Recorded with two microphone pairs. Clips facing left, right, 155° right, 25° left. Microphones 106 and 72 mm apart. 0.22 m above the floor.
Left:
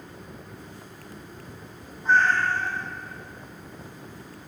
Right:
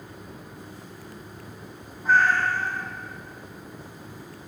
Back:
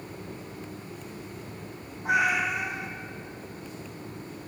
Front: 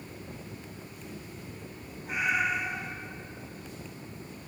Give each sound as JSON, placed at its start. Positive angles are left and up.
{"t": 2.0, "sound": "a cat meowing", "azimuth_deg": -175, "distance_m": 1.2}